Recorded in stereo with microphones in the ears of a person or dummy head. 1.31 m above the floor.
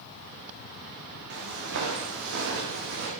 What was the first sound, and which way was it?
Footsteps, 60° right (ahead or behind).